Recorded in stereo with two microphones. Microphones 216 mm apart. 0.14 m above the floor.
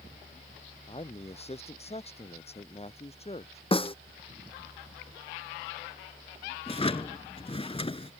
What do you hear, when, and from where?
0.9 s a man speaking: 30° left (ahead or behind)
3.7 s a snare drum: 25° left (ahead or behind)
6.7 s a drawer: 25° left (ahead or behind)